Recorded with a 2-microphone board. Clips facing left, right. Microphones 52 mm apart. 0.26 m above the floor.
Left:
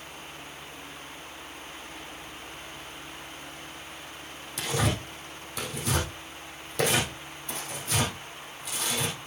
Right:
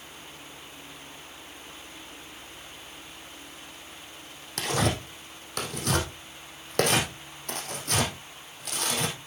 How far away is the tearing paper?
About 3 m.